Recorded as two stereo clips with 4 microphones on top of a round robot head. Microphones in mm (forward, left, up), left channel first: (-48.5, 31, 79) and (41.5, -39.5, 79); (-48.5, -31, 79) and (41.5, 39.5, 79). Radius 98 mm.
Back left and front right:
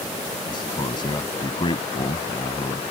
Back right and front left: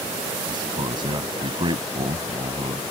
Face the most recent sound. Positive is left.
turn(degrees=90)